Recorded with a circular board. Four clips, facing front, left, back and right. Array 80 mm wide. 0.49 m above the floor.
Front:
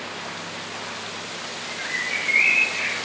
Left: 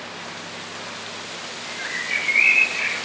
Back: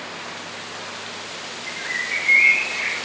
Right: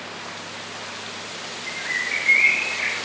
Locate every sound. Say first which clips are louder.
1.7 s a bird: right 1 dB, back 1 dB; 75° left, 3 m